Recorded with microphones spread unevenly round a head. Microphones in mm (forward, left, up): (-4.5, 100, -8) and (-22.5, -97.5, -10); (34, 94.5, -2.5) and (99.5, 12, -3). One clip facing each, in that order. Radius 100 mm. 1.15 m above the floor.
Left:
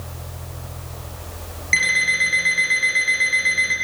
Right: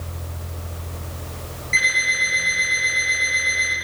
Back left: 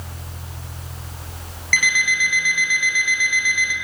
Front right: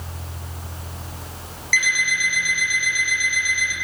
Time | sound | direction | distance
1.7 | an alarm clock | 95° left | 5.5 m